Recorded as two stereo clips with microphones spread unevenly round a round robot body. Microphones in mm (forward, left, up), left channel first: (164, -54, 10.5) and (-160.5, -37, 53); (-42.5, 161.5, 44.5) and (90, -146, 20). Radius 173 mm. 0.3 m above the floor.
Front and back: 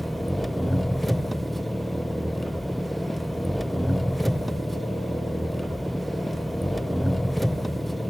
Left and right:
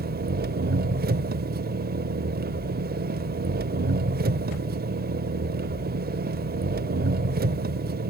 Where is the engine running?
80° right, 0.7 m.